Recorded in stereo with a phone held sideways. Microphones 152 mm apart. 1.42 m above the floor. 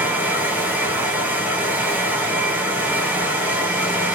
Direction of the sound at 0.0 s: 10° right (ahead or behind).